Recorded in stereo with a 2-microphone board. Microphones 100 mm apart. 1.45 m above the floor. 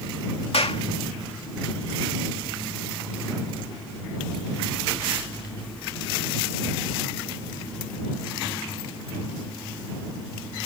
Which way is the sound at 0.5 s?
80° left.